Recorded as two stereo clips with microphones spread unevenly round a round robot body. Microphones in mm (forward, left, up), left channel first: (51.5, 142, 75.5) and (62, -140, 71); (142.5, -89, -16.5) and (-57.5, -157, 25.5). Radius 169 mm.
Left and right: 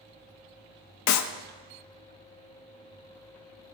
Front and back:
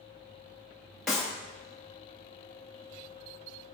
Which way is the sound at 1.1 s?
100° left.